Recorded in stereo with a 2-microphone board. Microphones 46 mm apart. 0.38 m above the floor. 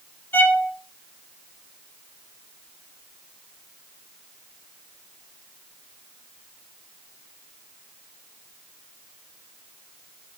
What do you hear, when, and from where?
0.3 s a violin: 50° left (ahead or behind), 3 m